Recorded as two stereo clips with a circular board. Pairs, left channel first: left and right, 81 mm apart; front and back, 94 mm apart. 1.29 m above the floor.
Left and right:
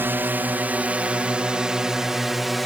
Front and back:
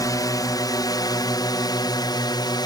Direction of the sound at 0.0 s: 30° right.